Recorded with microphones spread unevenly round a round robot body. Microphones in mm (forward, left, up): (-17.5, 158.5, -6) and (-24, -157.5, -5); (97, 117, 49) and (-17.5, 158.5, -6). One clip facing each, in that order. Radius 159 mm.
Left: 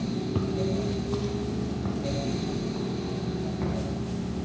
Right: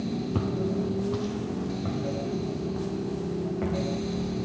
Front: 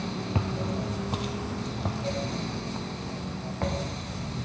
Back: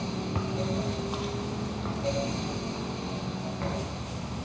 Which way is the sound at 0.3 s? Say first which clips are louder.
Even, even; straight ahead.